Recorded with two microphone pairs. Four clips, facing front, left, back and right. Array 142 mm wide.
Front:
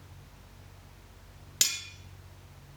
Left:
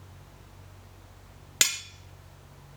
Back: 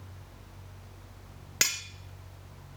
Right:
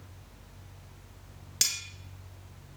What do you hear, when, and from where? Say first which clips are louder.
1.6 s cutlery clinking: left 8 dB, back 6 dB; 130° left, 1.0 m